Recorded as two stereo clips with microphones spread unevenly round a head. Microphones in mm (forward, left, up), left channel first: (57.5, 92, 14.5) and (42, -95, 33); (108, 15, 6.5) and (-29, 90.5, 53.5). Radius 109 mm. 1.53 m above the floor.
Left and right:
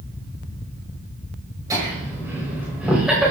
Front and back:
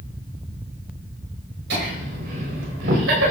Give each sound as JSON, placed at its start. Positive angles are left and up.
{"t": 1.7, "sound": "laughter", "azimuth_deg": -170, "distance_m": 5.5}